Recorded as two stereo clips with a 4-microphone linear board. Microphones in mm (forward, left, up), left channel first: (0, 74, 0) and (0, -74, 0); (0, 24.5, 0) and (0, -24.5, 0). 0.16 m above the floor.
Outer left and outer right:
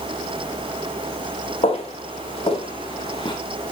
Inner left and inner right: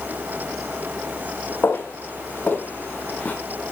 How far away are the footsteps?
About 4.5 m.